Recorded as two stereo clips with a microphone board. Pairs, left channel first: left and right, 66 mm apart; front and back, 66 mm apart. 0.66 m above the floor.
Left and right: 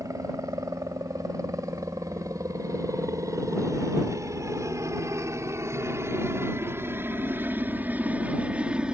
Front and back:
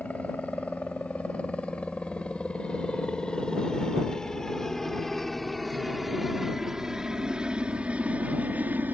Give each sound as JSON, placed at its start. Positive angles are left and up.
{"t": 0.0, "sound": "a helicopter", "azimuth_deg": -70}